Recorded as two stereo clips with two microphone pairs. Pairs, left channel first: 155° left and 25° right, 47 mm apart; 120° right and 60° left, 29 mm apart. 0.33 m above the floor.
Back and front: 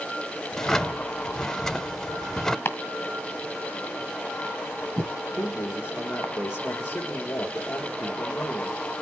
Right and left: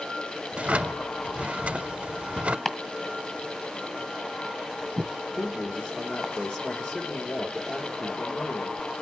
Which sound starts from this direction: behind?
Chopping, at 2.6 s.